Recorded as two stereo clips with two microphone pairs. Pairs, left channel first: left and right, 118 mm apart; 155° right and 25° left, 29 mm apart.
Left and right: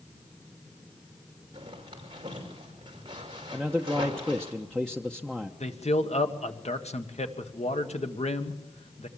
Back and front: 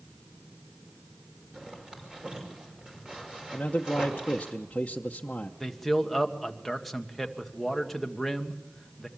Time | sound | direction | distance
1.5 | a zipper | 40° right | 5.5 m
3.5 | a man speaking | 175° left | 0.9 m
5.6 | a man speaking | 120° left | 1.6 m